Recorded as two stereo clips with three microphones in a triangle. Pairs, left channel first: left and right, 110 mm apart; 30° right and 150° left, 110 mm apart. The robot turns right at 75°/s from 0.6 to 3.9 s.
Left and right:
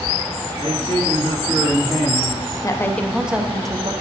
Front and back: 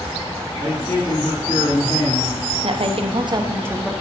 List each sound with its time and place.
0.6 s a man speaking: 110° right, 2.5 m; by 2.4 s 20° left, 2.5 m
2.6 s a woman speaking: 145° left, 0.7 m; by 3.9 s 125° right, 0.7 m